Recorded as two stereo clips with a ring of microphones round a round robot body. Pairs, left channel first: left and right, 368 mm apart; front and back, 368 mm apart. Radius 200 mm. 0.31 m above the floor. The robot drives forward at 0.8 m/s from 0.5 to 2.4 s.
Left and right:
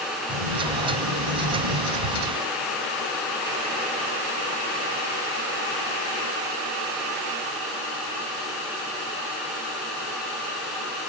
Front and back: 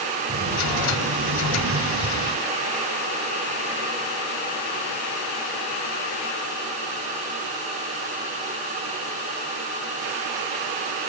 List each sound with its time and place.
0.3 s a sliding door: 115° right, 4.5 m; by 2.4 s 130° right, 5.5 m